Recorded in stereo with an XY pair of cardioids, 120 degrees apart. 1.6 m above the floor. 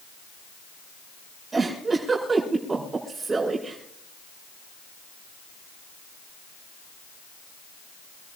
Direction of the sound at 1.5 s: 25° right.